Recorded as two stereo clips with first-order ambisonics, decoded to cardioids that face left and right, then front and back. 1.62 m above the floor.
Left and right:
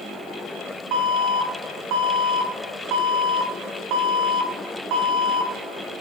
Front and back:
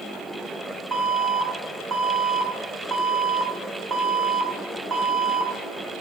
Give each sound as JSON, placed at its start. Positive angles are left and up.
{"t": 0.9, "sound": "an alarm", "azimuth_deg": -105, "distance_m": 1.5}